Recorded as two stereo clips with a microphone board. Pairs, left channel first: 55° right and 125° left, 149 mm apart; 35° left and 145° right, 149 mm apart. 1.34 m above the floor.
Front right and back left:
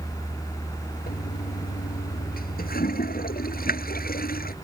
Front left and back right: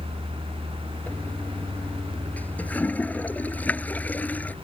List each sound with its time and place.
1.1 s a toilet flushing: 45° right